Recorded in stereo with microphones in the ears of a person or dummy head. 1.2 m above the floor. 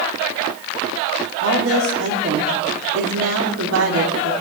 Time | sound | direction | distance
1.4 | a woman speaking | 80° right | 2.5 m